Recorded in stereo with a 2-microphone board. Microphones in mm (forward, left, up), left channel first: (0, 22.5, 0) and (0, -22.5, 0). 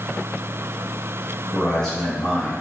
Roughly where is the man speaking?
Centre.